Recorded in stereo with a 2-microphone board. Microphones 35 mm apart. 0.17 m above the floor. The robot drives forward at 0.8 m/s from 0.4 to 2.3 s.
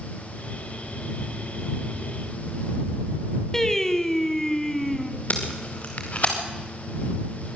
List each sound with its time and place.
3.5 s singing: 15° left (ahead or behind), 1.2 m
5.3 s tape being pulled: 45° left (ahead or behind), 4 m